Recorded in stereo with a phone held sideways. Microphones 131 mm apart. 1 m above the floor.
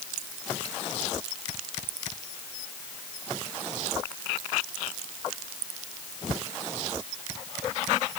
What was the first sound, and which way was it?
Only background noise.